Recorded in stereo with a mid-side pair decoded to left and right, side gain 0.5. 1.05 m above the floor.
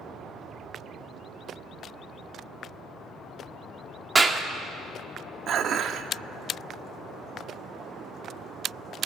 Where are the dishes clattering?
55° right, 1.2 m.